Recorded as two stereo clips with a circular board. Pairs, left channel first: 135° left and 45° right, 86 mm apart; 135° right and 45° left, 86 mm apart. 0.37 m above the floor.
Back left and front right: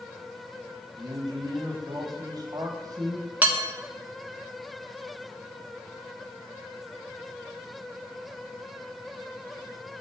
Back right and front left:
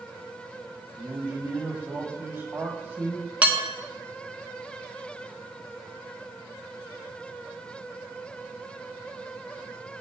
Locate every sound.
0.9 s a man speaking: 10° right, 1.6 m
3.4 s dishes clattering: 5° right, 0.6 m